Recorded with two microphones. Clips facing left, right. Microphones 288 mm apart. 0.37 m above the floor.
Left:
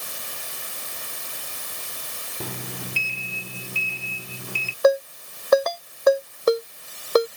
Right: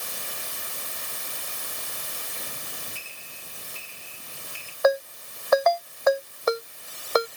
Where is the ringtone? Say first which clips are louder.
Left 4 dB; 35° left (ahead or behind).